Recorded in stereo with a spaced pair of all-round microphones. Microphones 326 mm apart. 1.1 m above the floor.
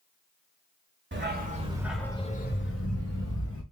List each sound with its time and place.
1.1 s a dog barking: 35° right (ahead or behind), 1.2 m; by 3.6 s 60° left (ahead or behind), 1.6 m